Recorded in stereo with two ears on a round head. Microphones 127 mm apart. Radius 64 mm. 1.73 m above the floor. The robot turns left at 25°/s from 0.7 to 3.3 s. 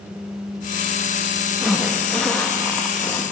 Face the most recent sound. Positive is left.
turn(degrees=20)  # may be behind; listen again after turning